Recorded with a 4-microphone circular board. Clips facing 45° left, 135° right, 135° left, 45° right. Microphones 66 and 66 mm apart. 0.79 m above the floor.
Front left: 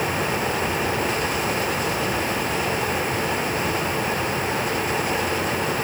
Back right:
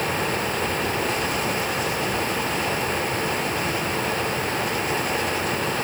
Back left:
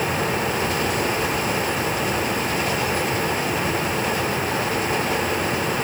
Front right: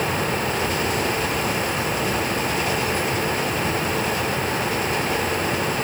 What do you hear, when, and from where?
Only background noise.